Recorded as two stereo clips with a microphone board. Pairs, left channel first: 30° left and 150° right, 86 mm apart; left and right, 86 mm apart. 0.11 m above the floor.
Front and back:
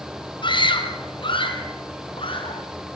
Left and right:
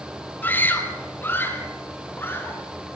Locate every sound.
0.4 s a scream: 25° left, 3 m